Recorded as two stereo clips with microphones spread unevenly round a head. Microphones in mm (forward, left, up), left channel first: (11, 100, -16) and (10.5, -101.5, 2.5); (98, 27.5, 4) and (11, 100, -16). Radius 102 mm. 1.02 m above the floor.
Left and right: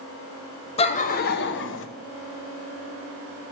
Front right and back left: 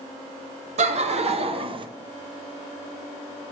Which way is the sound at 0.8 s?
150° left.